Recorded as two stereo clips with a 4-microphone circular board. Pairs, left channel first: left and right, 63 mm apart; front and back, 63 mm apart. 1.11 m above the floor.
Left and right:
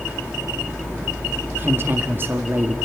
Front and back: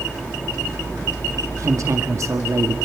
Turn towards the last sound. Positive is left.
turn(degrees=-145)